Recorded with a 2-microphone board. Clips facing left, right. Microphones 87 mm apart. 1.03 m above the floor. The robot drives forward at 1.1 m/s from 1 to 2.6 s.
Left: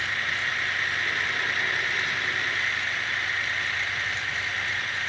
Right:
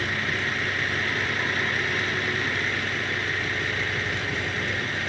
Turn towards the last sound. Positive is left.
turn(degrees=-55)  # may be behind; listen again after turning